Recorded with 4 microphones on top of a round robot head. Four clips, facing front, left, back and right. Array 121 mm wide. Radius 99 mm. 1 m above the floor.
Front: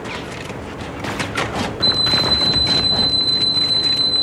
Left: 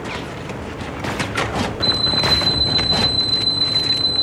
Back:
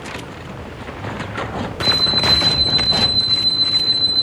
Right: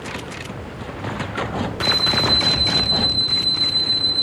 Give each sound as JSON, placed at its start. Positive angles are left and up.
{"t": 1.8, "sound": "an alarm clock", "azimuth_deg": 75, "distance_m": 2.5}